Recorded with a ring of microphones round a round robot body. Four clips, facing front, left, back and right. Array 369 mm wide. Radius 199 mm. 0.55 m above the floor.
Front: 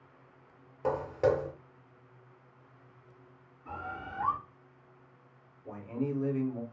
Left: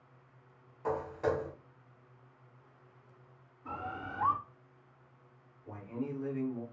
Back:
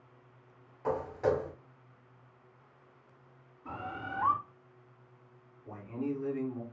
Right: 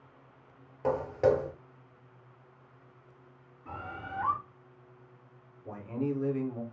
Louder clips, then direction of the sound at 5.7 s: Right 6 dB, front 2 dB; 60° right.